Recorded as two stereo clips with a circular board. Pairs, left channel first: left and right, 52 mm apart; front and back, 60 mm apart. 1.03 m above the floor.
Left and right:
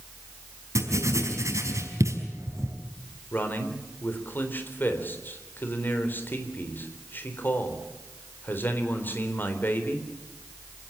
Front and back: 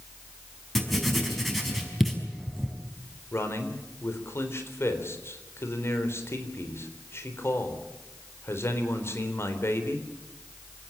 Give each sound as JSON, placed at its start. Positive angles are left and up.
{"t": 0.8, "sound": "writing", "azimuth_deg": -90, "distance_m": 5.0}
{"t": 3.3, "sound": "a man speaking", "azimuth_deg": 45, "distance_m": 3.5}